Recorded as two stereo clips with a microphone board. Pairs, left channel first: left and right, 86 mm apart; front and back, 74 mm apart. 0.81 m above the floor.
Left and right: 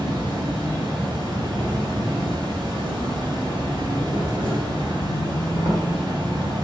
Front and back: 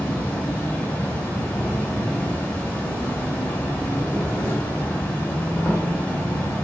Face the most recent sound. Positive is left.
turn(degrees=-70)